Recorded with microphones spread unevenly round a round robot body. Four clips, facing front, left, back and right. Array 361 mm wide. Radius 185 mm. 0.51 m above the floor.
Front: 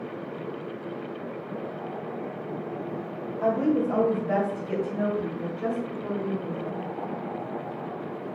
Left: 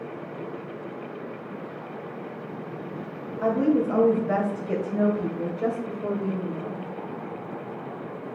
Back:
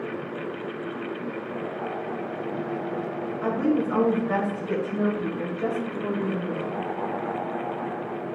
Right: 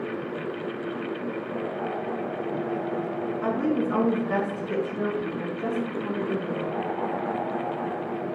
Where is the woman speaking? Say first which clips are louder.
Left 5 dB, front 1 dB; 80° left, 2.5 m; by 6.8 s 125° left, 2.5 m.